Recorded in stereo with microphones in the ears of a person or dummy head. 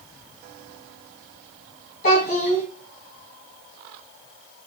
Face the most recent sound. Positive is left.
turn(degrees=45)  # may be behind; listen again after turning